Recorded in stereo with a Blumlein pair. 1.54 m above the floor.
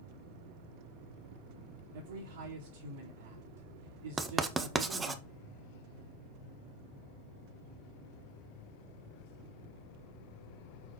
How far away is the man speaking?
About 1.8 m.